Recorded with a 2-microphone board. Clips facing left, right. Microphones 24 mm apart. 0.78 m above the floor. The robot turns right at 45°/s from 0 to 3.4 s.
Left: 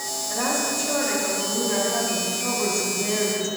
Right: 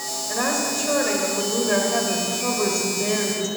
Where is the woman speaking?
155° right, 3 m; by 3.5 s 15° right, 3 m.